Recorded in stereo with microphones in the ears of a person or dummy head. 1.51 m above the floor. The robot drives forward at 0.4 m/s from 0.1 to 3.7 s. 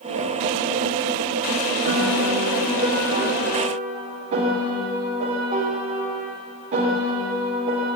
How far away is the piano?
About 1.5 m.